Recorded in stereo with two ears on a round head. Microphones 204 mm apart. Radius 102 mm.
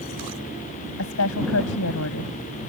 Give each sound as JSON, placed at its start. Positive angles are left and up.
{"t": 1.0, "sound": "a woman speaking", "side_deg": 70}